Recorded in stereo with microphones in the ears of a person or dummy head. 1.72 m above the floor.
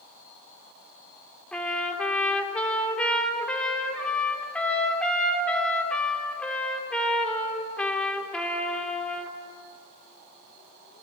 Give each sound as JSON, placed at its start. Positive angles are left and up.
{"t": 1.5, "sound": "a trumpet", "side_deg": 5, "distance_m": 3.0}